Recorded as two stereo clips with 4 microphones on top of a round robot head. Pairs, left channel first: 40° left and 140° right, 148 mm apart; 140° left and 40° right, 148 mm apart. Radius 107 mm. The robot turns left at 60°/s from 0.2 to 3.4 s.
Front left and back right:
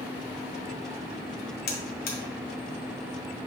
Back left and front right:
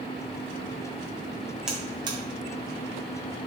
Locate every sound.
1.7 s a buzzer: 45° left, 0.8 m; by 2.2 s 15° left, 0.8 m